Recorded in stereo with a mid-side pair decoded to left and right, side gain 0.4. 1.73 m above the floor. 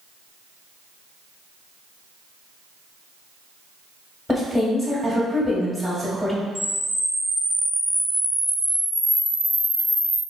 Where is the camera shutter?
5° left, 1.4 m.